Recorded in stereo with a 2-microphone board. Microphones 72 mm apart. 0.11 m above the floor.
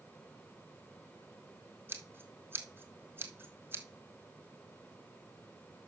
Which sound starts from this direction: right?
Scissors, at 1.9 s.